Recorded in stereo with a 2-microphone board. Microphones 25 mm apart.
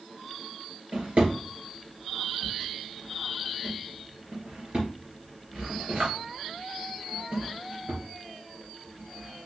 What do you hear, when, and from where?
0.9 s a drawer: 60° right (ahead or behind), 3 m